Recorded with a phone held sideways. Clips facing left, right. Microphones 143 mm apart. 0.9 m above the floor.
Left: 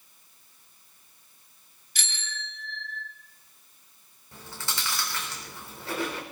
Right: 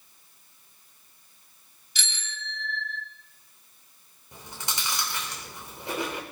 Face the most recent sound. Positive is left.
turn(degrees=-20)  # may be behind; listen again after turning